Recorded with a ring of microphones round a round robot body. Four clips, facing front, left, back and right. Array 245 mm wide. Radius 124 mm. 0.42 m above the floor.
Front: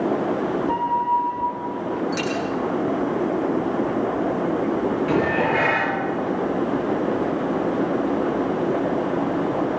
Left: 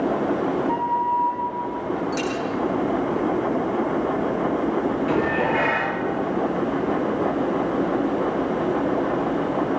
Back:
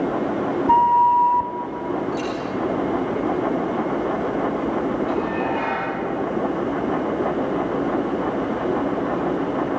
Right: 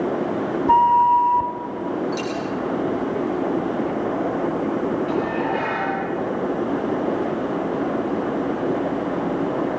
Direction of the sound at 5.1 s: 20° left.